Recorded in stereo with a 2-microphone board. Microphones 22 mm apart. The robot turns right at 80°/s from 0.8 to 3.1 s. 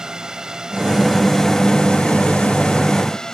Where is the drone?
35° right; by 3.3 s 150° left.